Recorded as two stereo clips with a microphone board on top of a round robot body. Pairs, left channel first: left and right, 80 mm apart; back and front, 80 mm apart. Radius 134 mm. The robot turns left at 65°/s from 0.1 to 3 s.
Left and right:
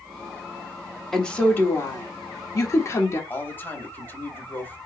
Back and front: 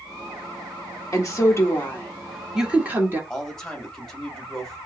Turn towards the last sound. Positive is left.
turn(degrees=105)